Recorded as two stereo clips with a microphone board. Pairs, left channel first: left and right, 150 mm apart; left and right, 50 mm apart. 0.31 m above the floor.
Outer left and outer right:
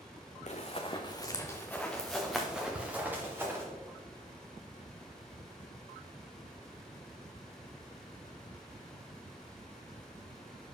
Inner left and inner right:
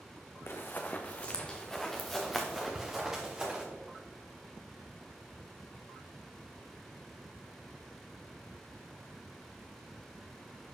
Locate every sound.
0.5 s running footsteps: 50° left (ahead or behind), 1.1 m; by 3.6 s 15° right (ahead or behind), 2.5 m
2.8 s ticking: 45° right (ahead or behind), 0.6 m